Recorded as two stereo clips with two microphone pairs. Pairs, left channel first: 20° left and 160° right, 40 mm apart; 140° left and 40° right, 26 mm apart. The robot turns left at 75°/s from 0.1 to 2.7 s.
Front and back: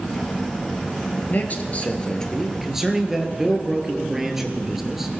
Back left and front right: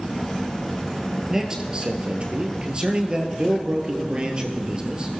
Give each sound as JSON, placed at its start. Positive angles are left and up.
{"t": 1.3, "sound": "a man speaking", "azimuth_deg": 25, "distance_m": 2.5}